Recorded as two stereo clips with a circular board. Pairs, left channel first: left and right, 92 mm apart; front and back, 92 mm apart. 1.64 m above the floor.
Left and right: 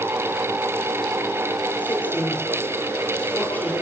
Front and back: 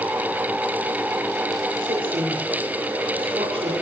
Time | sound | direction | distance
1.8 | a woman speaking | 160° left | 6 m